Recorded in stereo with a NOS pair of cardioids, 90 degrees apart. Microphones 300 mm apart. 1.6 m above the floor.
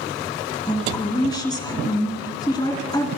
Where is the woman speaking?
15° left, 3 m.